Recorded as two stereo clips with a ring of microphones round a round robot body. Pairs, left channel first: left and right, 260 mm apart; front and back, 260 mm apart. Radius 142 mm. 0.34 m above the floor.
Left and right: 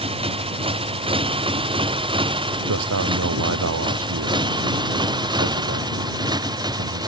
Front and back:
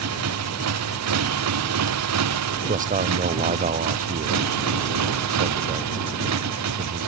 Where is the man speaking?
120° right.